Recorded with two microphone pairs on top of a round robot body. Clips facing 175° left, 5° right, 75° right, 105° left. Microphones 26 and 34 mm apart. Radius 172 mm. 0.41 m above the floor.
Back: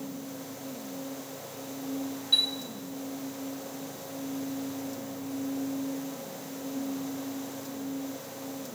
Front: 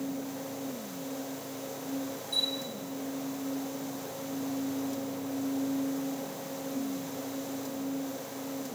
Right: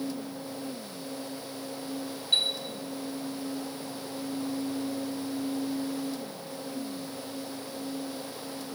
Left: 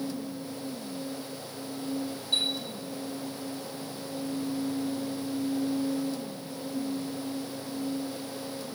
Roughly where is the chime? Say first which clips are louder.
Back 6 dB, right 2 dB; behind right.